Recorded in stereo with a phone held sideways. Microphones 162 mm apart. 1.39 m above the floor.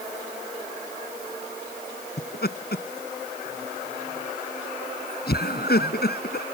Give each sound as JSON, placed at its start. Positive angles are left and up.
{"t": 2.2, "sound": "laughter", "side_deg": 75}